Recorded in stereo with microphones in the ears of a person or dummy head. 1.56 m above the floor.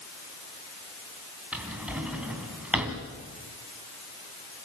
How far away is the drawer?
About 3 m.